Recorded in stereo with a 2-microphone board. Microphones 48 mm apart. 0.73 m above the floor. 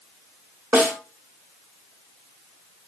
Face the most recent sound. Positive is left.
turn(degrees=-45)  # may be behind; listen again after turning